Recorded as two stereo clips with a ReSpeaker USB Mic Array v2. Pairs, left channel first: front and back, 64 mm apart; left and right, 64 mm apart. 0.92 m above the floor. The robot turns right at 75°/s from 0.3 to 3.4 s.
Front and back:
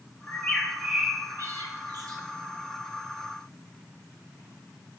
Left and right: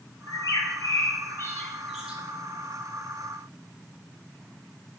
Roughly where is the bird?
Ahead left.